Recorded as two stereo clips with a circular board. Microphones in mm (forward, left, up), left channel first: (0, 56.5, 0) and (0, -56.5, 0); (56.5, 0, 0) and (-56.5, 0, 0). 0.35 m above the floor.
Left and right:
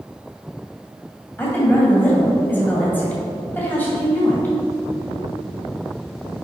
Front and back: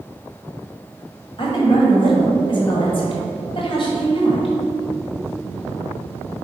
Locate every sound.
1.4 s a woman speaking: 20° left, 1.9 m